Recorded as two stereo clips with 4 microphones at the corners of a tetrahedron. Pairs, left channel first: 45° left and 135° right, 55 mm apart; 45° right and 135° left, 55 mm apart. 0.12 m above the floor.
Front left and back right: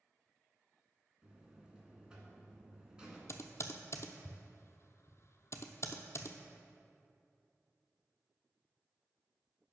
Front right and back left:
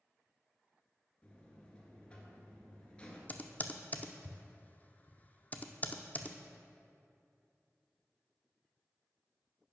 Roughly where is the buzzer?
Right.